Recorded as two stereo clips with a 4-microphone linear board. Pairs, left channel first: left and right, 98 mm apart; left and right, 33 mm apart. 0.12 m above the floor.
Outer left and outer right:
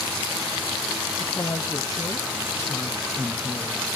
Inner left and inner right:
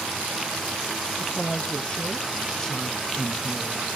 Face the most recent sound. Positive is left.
turn(degrees=-5)  # may be behind; listen again after turning